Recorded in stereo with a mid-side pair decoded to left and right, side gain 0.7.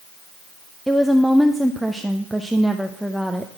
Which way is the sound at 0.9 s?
5° right.